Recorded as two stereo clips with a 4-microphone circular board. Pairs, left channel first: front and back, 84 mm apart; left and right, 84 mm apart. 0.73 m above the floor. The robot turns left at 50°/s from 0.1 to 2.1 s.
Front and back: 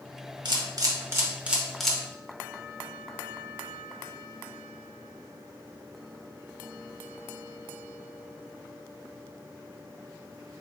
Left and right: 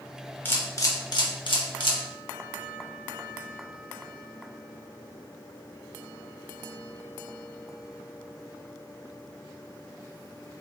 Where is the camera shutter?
155° left, 0.7 m; by 2.0 s 80° left, 0.7 m.